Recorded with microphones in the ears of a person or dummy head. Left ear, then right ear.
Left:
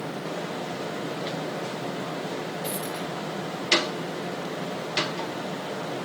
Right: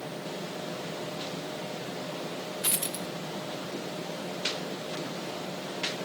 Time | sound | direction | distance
2.6 | a dropped coin | 15° right (ahead or behind) | 0.6 m